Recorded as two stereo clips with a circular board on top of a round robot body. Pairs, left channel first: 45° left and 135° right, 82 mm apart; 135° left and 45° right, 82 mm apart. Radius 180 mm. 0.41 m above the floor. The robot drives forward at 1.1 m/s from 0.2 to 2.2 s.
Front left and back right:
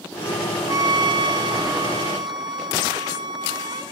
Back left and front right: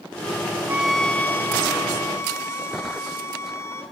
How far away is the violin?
About 0.6 m.